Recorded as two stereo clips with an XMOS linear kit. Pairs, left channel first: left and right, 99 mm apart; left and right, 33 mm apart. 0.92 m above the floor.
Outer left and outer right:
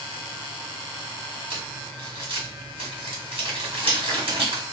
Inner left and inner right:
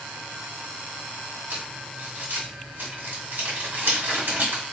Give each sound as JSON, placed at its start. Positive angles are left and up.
{"t": 1.5, "sound": "crumpling", "side_deg": -70, "distance_m": 2.0}